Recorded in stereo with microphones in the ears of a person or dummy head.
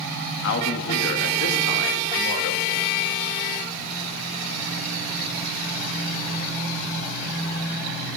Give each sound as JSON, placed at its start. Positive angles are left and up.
{"t": 0.4, "sound": "a man speaking", "side_deg": 60, "distance_m": 1.6}